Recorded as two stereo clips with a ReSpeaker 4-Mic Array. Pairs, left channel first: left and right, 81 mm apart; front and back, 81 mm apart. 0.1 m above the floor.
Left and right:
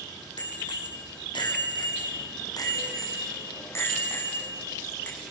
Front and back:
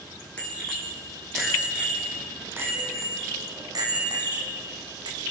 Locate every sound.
0.4 s a bicycle bell: 75° left, 4 m; by 5.2 s 165° left, 5.5 m